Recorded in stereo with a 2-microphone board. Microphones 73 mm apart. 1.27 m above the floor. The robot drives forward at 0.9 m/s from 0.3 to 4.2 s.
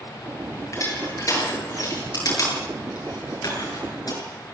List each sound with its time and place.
0.7 s crushing: 45° left (ahead or behind), 10 m; by 4.2 s 60° left (ahead or behind), 8 m